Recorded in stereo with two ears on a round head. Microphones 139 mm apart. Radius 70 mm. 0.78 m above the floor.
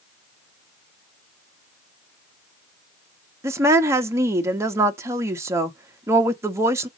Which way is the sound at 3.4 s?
20° right (ahead or behind).